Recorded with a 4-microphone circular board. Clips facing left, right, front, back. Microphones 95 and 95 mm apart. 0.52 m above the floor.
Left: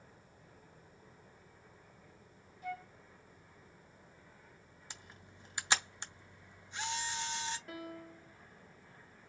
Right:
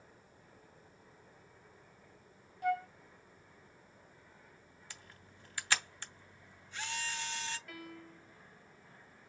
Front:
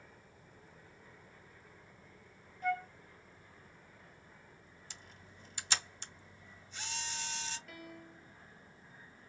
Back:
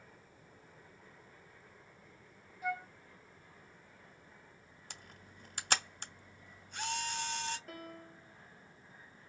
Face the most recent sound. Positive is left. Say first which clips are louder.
# left 3 dB, back 2 dB
turn(degrees=140)